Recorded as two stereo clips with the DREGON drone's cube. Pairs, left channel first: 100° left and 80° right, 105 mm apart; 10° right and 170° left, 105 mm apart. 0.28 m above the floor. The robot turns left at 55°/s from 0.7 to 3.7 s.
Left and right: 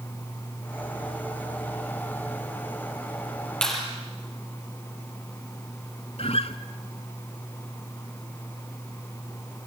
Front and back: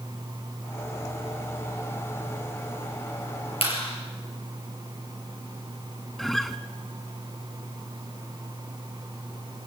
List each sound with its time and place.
3.6 s a clap: 20° left, 5 m; by 3.8 s 15° left, 5 m
6.2 s a guitar: 75° left, 0.7 m